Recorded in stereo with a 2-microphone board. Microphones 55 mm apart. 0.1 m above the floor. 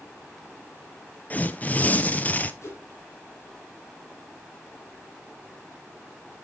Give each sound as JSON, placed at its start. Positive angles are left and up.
{"t": 1.3, "sound": "tearing paper", "side_deg": 30, "distance_m": 0.6}
{"t": 2.6, "sound": "a whoosh", "side_deg": 55, "distance_m": 2.5}